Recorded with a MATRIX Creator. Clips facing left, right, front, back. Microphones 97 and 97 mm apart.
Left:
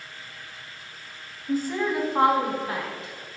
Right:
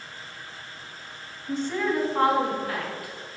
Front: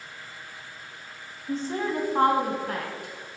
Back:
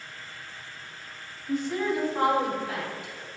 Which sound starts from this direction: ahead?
A woman speaking, at 1.5 s.